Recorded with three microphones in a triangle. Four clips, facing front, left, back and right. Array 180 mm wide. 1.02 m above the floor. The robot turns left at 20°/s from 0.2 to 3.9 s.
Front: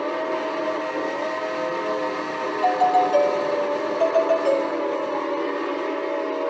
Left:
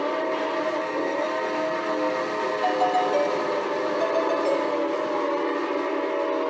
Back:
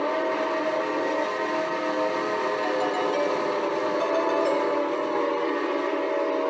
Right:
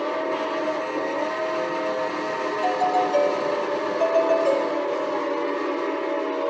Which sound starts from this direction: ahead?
A doorbell, at 2.6 s.